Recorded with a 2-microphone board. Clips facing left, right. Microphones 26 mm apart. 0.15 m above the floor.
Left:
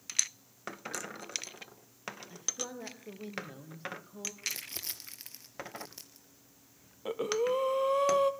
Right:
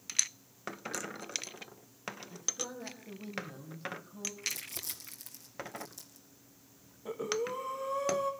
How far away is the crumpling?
About 2.5 m.